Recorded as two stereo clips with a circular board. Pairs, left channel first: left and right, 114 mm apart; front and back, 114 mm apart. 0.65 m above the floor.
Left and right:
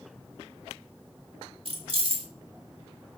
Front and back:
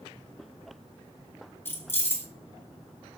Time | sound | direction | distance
1.6 | keys jangling | 70° right | 1.0 m